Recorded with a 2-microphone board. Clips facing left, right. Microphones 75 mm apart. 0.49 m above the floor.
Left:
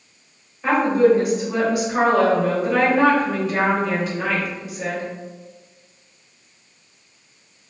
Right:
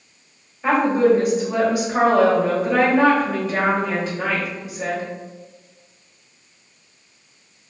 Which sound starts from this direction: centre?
A woman speaking, at 0.6 s.